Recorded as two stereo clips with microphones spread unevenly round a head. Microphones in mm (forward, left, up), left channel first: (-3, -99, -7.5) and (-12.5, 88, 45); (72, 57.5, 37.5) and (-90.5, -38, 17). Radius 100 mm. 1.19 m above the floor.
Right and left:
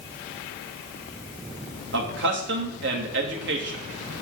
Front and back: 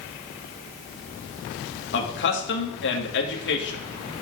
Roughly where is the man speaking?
Ahead left.